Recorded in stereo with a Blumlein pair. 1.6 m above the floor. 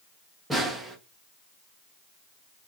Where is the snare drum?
5° right, 0.8 m.